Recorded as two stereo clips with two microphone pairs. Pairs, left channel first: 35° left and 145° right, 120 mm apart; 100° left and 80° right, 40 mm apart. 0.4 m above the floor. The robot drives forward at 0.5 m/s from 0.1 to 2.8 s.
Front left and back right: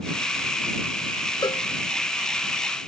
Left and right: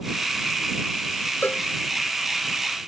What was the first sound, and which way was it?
A cowbell, 85° left.